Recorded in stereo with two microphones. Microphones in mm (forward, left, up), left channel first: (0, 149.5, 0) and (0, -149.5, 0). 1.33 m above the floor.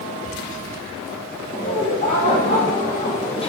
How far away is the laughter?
About 4 m.